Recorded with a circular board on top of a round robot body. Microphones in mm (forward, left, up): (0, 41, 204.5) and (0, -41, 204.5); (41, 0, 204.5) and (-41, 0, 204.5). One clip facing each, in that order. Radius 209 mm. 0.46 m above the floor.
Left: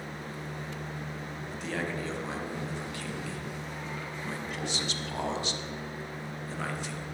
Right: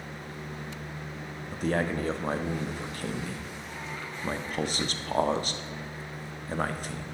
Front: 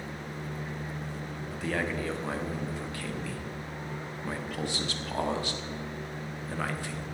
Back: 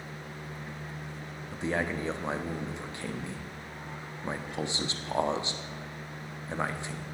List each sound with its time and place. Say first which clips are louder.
1.5 s a man speaking: right 7 dB, back 1 dB; 120° right, 1.3 m